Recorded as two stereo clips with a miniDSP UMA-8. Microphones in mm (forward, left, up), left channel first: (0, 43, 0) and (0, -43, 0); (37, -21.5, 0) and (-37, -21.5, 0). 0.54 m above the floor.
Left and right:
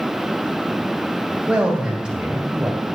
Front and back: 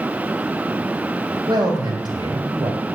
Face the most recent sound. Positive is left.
turn(degrees=-170)